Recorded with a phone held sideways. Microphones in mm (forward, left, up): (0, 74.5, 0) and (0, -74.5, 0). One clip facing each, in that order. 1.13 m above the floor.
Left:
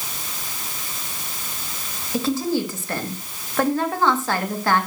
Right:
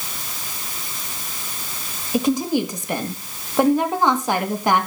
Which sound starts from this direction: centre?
A woman speaking, at 2.1 s.